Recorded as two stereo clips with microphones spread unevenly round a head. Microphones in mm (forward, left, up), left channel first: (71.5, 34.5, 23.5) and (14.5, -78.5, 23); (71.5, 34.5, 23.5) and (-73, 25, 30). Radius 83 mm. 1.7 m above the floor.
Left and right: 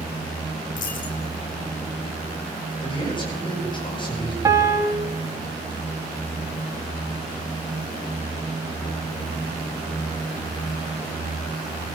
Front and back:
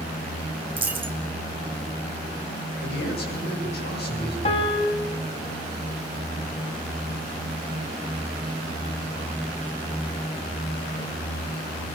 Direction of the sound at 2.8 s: 10° left.